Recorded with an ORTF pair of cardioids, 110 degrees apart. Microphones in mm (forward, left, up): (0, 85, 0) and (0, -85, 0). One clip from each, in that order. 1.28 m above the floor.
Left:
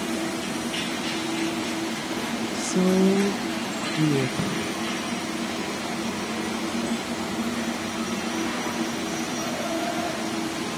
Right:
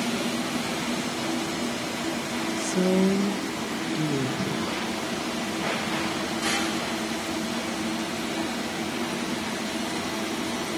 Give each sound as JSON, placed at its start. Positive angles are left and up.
{"t": 2.5, "sound": "a woman speaking", "azimuth_deg": 10, "distance_m": 1.3}
{"t": 4.4, "sound": "a snare drum", "azimuth_deg": 55, "distance_m": 7.5}